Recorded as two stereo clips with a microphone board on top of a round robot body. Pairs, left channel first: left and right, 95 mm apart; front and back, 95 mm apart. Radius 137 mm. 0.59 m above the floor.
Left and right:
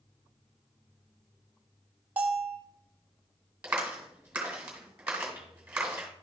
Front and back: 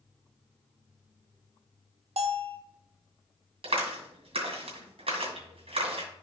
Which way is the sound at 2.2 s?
165° right.